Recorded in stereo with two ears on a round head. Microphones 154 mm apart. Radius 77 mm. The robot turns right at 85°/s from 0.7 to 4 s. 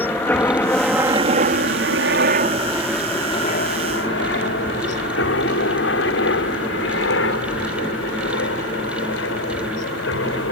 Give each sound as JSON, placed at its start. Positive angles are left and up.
{"t": 0.0, "sound": "a helicopter", "side_deg": 10}